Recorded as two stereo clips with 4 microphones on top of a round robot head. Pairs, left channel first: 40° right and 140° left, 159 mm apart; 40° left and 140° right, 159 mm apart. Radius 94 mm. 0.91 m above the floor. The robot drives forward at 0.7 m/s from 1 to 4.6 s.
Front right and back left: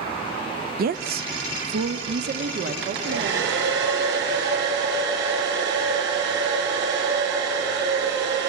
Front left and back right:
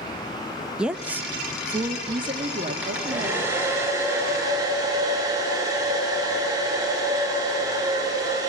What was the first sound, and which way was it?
A woman speaking, 135° left.